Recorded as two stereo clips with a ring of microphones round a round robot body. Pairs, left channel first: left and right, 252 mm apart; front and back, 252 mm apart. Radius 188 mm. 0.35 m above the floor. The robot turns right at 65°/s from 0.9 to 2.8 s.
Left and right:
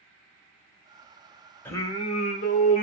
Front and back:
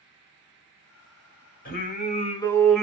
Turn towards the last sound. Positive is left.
turn(degrees=90)